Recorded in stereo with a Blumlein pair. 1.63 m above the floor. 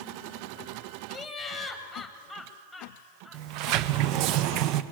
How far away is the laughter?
About 1.7 m.